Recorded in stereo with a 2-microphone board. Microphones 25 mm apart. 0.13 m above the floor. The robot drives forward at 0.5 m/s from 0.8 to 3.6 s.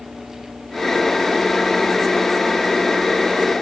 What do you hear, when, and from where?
Only background noise.